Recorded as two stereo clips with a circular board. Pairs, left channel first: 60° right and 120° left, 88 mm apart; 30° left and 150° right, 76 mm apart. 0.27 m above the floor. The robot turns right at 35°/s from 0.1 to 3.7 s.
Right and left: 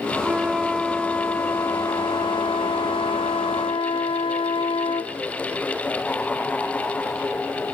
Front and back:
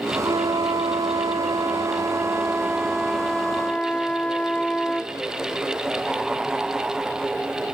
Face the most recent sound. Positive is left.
turn(degrees=-45)